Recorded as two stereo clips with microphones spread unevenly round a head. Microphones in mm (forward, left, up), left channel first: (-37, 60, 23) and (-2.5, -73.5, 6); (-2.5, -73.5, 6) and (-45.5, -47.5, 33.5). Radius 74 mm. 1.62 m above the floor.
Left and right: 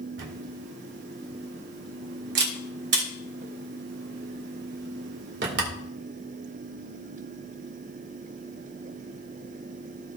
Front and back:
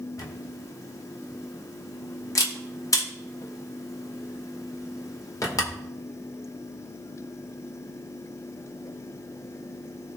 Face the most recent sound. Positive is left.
turn(degrees=-60)